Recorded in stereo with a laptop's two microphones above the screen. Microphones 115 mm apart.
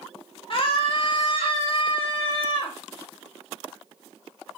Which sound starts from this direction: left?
A scream, at 0.5 s.